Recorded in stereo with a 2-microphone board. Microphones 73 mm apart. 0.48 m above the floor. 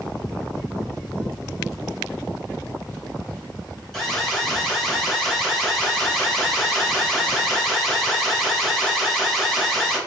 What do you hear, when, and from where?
3.9 s an alarm: 5° left (ahead or behind), 1.4 m